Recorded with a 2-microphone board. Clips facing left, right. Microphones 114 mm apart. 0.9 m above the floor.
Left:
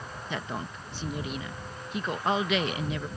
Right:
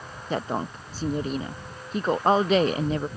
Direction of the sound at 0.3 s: 40° right (ahead or behind).